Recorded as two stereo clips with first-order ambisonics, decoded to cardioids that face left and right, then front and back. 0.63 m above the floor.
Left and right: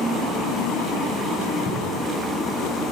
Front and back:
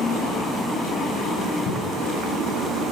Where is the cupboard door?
55° left, 5 m.